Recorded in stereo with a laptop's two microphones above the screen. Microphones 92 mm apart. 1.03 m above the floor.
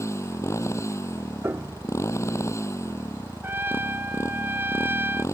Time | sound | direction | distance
0.0 | a motorcycle | 30° left (ahead or behind) | ?
1.4 | a piano | 25° right (ahead or behind) | ?
3.4 | a trumpet | 25° right (ahead or behind) | ?